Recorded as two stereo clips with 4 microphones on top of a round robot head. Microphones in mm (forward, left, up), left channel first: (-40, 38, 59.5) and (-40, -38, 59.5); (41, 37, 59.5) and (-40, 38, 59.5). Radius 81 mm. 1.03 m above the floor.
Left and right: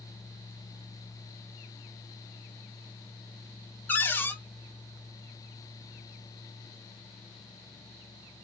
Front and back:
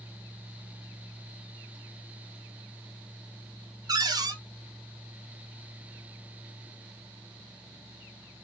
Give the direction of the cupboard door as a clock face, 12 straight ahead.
7 o'clock.